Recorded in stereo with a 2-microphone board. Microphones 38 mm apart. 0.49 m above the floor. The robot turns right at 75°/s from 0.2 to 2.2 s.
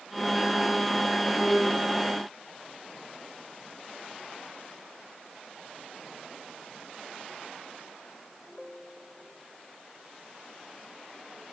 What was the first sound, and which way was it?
Only background noise.